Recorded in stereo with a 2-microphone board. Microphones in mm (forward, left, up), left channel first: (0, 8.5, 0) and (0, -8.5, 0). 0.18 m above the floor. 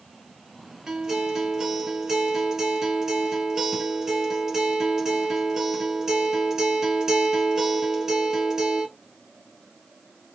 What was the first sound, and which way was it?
A guitar, 25° right (ahead or behind).